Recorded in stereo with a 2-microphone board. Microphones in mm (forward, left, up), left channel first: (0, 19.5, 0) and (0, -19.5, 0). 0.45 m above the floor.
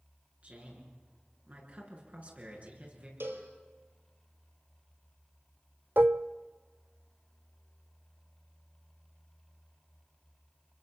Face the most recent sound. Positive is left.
turn(degrees=-50)  # may be behind; listen again after turning